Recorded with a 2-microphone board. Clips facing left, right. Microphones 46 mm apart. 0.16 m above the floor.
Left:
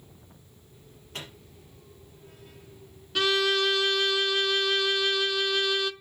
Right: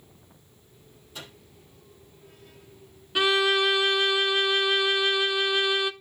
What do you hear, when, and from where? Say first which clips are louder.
1.1 s a microwave: left 2 dB; 60° left (ahead or behind), 4 m
3.1 s a violin: right 2 dB; 15° right (ahead or behind), 0.5 m